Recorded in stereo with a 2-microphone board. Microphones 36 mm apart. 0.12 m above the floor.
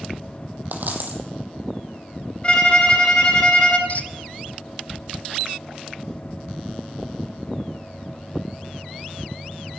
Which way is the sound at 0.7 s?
55° right (ahead or behind).